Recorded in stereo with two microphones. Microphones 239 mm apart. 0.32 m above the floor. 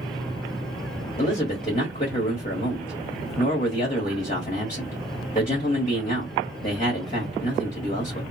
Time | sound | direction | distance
1.2 | a man speaking | 35° left (ahead or behind) | 1.4 m